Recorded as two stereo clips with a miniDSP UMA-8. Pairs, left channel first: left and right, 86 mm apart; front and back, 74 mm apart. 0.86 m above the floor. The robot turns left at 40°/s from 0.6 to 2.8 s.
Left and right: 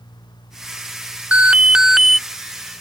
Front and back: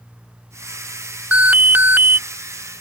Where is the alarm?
140° right; by 2.2 s 175° right.